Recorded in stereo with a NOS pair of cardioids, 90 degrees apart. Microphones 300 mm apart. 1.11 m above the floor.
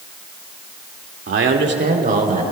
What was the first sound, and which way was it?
A man speaking, 45° right.